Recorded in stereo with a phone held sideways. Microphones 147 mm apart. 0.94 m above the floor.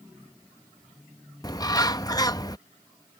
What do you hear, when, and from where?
1.4 s a bird: 25° left (ahead or behind)